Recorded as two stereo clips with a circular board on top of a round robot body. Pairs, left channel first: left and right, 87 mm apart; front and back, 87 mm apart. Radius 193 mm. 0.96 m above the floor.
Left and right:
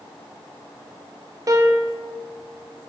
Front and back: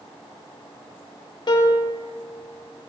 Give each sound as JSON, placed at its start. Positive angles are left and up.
{"t": 1.5, "sound": "a piano", "azimuth_deg": -40, "distance_m": 0.5}